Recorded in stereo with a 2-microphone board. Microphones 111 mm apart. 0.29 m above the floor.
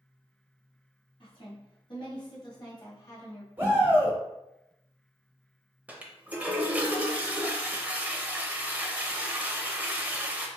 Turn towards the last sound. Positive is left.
turn(degrees=-15)  # may be behind; listen again after turning